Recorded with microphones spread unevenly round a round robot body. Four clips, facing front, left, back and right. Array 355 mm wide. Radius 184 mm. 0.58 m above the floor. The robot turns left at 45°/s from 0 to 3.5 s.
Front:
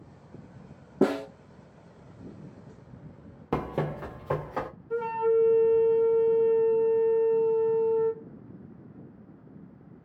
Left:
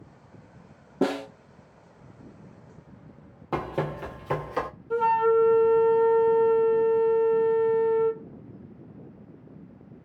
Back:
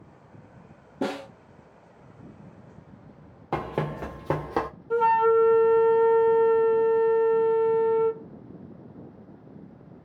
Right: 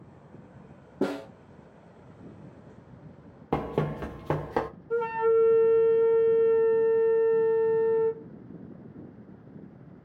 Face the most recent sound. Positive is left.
turn(degrees=155)